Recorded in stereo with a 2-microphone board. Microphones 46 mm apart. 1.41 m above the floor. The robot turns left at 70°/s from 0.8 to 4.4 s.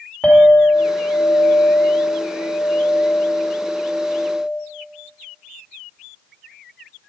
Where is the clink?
135° left, 2.5 m; by 4.6 s 120° right, 2.5 m.